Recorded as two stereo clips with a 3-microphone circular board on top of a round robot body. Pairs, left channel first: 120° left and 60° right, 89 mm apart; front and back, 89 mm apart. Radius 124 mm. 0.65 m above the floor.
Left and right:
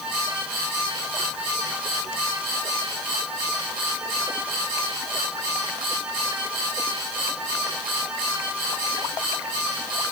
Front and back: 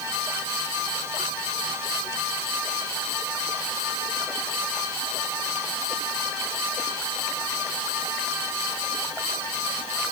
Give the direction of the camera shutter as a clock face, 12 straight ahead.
No camera shutter in this recording.